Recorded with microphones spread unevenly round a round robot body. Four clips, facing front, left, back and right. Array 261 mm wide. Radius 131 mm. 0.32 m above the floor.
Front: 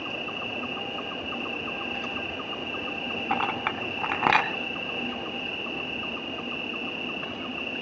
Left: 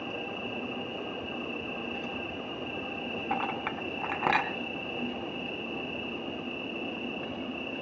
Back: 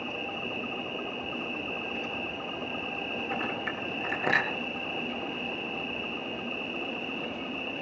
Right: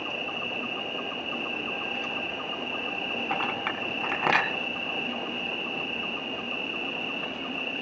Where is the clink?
20° right, 2.5 m.